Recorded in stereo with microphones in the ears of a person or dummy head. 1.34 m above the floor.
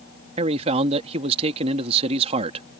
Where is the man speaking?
35° right (ahead or behind).